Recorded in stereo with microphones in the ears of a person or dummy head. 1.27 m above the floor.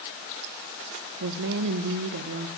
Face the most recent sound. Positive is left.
turn(degrees=-65)  # may be behind; listen again after turning